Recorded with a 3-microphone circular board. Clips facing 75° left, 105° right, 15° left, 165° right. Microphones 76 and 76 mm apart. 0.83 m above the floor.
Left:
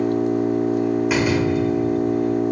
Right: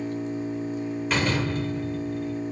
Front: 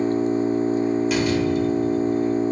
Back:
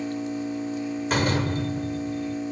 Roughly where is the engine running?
Ahead left.